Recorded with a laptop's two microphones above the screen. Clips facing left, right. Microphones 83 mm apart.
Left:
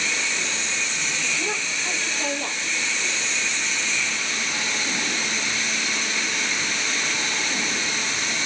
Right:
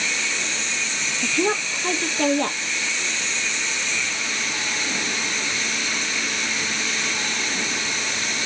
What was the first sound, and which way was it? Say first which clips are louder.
A woman speaking: right 10 dB; 65° right (ahead or behind).